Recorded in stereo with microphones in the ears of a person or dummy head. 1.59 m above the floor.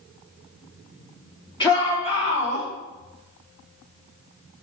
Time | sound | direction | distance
1.6 | a shout | 25° left (ahead or behind) | 3.5 m